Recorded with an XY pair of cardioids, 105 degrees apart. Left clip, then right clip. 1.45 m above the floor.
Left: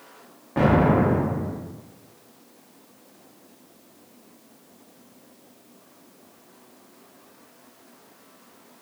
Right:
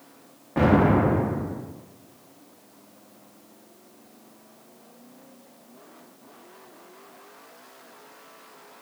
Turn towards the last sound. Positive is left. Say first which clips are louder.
# even
turn(degrees=0)